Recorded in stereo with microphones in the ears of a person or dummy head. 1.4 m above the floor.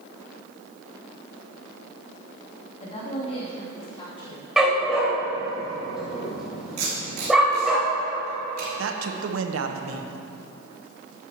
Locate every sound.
2.8 s a woman speaking: 40° left (ahead or behind), 2.5 m; by 4.4 s 30° left (ahead or behind), 5 m
4.6 s a dog barking: centre (ahead or behind), 3 m
6.8 s tape being pulled: 55° right (ahead or behind), 3.5 m
8.8 s a man speaking: 75° right (ahead or behind), 1.0 m